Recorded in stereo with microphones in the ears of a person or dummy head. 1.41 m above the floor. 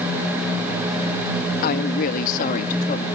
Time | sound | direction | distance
1.6 | a woman speaking | 55° left (ahead or behind) | ?